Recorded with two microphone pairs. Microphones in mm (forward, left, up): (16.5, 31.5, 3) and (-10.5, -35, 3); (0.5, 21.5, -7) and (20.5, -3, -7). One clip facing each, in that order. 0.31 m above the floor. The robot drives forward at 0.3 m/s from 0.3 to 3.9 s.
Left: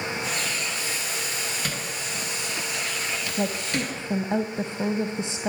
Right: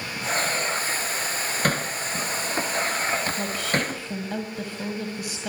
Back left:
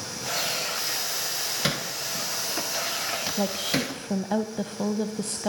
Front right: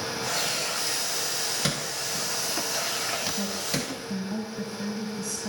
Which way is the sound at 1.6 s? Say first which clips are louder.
Right 6 dB, back left 1 dB; 150° right.